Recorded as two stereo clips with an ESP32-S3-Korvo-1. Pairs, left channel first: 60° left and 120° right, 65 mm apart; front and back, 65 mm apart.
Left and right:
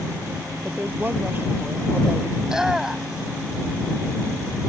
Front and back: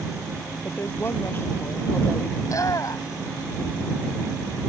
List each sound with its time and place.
0.7 s a woman speaking: 60° right
2.4 s a shout: 40° right